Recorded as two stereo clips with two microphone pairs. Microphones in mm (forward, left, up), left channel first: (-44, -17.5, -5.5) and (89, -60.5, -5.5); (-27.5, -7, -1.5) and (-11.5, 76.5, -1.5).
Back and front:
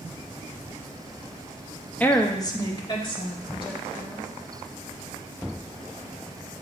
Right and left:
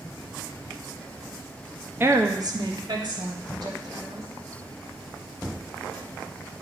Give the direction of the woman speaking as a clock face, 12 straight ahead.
9 o'clock.